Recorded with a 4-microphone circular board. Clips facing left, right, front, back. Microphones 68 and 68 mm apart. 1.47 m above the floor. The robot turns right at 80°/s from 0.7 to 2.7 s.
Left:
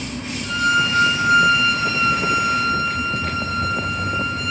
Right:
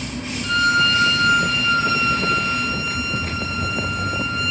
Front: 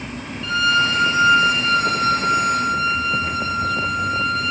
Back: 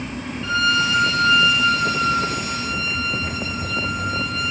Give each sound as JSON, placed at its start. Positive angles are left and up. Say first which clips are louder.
{"t": 0.4, "sound": "a violin", "louder": "right 1 dB, front 2 dB", "azimuth_deg": -115, "distance_m": 0.6}